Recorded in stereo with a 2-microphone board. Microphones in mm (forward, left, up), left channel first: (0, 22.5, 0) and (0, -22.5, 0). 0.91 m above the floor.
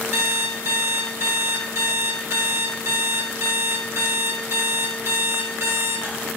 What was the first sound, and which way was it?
An alarm clock, 60° right (ahead or behind).